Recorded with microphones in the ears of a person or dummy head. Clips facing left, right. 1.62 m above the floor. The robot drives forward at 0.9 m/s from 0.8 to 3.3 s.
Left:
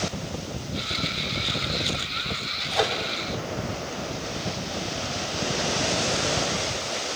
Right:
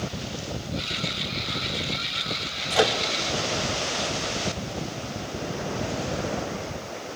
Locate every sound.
2.7 s a microwave: 45° right (ahead or behind), 2.5 m; by 3.0 s 40° right (ahead or behind), 3 m